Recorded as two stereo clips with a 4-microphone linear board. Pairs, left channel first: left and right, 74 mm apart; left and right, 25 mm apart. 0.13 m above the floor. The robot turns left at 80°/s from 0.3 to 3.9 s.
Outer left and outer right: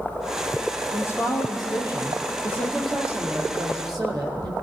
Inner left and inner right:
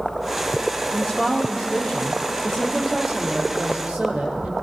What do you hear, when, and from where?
0.9 s a woman speaking: 155° left, 5 m; by 4.5 s 85° right, 5 m